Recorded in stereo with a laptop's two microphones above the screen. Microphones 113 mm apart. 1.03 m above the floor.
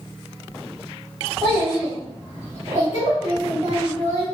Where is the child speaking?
10° left (ahead or behind), 1.2 m; by 4.2 s 70° right (ahead or behind), 1.2 m.